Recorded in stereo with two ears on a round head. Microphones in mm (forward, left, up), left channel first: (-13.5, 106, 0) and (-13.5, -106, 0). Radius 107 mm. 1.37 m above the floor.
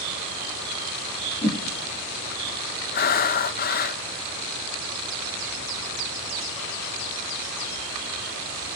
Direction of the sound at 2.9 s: 40° left (ahead or behind).